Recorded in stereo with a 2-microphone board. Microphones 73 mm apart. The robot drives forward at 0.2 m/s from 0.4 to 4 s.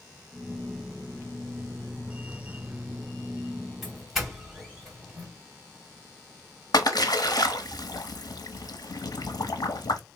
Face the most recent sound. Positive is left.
turn(degrees=65)  # may be behind; listen again after turning